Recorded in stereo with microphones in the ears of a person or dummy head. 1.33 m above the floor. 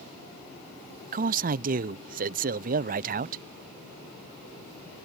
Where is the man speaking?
35° right (ahead or behind).